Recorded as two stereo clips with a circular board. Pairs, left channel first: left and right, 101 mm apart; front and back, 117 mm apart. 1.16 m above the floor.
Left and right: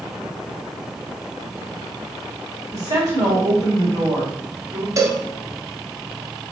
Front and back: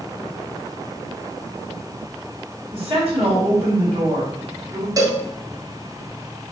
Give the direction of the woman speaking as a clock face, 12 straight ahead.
5 o'clock.